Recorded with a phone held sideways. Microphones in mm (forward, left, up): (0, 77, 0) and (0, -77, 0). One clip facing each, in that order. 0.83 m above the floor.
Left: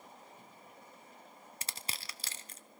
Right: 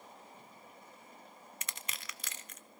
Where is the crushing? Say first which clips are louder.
Left 2 dB; 30° left (ahead or behind), 0.7 m.